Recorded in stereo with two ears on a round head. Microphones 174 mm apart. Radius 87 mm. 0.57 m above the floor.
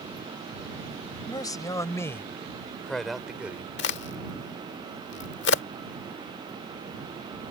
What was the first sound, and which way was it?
A man speaking, 20° left (ahead or behind).